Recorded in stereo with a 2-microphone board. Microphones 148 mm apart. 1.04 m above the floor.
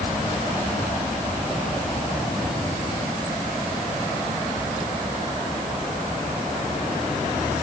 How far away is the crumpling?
I don't hear crumpling.